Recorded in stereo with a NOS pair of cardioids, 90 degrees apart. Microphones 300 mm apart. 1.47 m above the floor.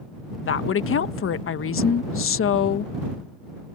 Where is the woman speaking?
45° left.